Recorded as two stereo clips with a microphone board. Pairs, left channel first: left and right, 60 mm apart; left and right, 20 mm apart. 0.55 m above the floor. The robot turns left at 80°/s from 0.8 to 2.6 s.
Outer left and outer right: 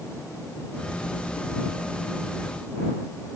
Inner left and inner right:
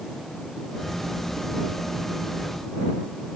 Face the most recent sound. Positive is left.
No sound to turn to.